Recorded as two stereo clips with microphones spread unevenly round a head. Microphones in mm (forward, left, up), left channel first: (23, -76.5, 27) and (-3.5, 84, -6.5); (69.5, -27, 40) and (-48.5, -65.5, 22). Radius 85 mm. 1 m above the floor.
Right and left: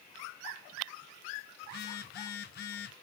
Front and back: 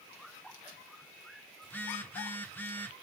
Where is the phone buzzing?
55° right, 1.1 m.